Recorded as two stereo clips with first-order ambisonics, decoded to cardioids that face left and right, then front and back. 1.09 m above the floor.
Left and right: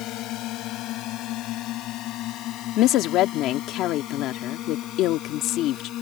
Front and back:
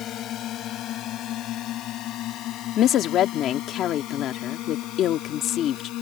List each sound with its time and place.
0.0 s a drone: 50° left; by 6.0 s 40° left
2.8 s a woman speaking: 50° left